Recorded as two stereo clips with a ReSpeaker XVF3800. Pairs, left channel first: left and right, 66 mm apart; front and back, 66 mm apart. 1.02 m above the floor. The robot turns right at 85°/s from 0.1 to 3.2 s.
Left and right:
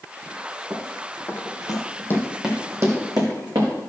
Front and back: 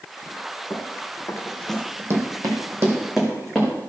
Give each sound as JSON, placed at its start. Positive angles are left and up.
{"t": 0.7, "sound": "running footsteps", "azimuth_deg": -45, "distance_m": 2.0}